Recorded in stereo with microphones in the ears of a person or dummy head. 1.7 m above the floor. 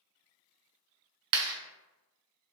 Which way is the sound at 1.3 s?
65° right (ahead or behind).